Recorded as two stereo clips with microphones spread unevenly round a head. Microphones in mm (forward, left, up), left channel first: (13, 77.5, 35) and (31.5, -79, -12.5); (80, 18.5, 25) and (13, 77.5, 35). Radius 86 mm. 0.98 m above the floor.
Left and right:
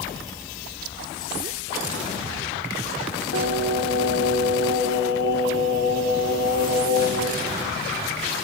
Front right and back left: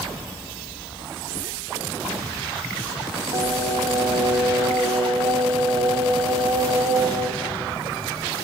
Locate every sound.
3.3 s singing: 135° left, 1.8 m